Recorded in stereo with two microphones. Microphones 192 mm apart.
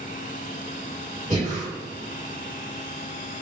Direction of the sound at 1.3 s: 40° right (ahead or behind).